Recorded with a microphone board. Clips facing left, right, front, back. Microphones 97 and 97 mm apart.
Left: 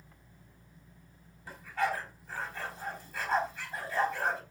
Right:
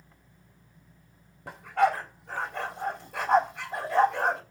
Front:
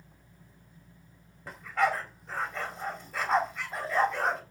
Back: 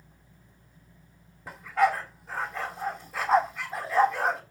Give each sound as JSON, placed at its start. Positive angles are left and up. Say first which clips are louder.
{"t": 1.5, "sound": "a dog barking", "louder": "right 8 dB, back 4 dB", "azimuth_deg": -95, "distance_m": 3.5}